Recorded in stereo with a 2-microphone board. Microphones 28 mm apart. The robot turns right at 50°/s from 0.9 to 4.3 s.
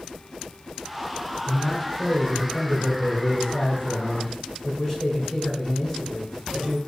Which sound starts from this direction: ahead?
A man speaking, at 1.5 s.